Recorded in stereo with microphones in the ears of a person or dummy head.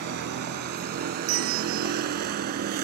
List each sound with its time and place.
0.0 s a vehicle: 55° right (ahead or behind); by 2.9 s 50° right (ahead or behind)
1.3 s a bell: 75° right (ahead or behind)